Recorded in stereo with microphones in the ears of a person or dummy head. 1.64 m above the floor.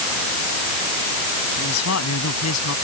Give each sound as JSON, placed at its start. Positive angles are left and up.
{"t": 1.6, "sound": "a man speaking", "side_deg": 90}